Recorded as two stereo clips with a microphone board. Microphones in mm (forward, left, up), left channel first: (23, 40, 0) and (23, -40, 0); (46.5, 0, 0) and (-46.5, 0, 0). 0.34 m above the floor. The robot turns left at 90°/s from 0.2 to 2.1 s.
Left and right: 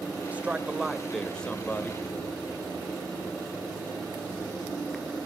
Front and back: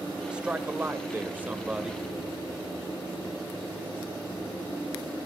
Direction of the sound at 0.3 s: 115° right.